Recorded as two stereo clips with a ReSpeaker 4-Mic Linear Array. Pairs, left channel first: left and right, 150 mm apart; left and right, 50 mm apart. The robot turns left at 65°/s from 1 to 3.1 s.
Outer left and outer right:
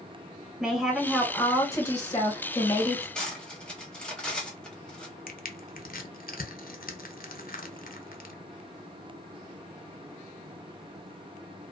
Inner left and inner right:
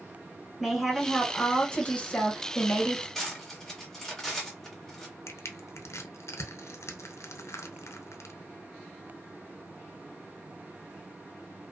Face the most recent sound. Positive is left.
turn(degrees=75)  # may be behind; listen again after turning